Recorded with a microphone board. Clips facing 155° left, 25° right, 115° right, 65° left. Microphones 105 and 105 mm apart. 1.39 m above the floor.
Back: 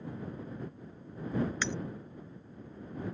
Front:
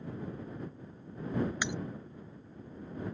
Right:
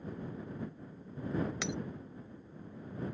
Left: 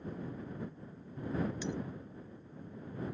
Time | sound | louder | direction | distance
1.6 | breaking glass | even, even | 100° right | ?